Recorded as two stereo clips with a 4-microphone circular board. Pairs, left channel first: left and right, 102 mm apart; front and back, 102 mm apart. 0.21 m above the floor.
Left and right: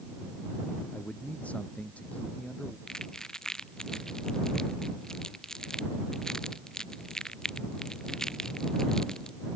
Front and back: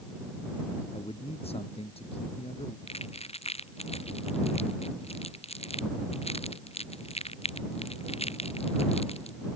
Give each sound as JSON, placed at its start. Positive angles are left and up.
{"t": 0.9, "sound": "a man speaking", "azimuth_deg": 15}
{"t": 2.9, "sound": "crumpling", "azimuth_deg": 5}